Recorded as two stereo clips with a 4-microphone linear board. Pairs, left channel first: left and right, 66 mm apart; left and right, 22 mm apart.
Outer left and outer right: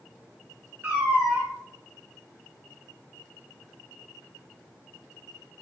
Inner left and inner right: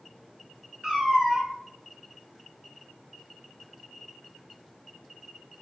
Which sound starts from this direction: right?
A cat meowing, at 0.8 s.